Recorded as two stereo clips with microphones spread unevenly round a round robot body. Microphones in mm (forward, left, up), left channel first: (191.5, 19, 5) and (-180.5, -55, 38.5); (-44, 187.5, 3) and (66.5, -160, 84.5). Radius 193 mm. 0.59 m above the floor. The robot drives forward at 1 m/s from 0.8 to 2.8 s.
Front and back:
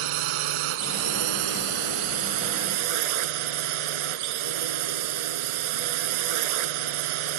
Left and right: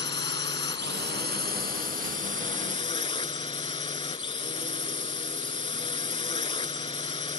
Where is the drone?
175° right.